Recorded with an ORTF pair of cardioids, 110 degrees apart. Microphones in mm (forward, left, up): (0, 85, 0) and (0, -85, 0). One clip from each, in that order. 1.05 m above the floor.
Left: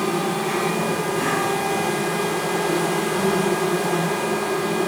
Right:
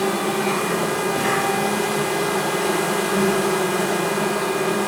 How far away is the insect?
About 2.5 m.